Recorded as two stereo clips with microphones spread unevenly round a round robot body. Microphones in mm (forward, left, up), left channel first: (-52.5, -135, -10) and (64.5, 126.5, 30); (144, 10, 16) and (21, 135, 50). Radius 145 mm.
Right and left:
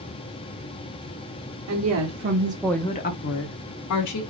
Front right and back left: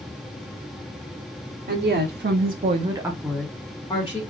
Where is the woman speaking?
105° left, 1.2 m; by 4.2 s 105° right, 1.5 m.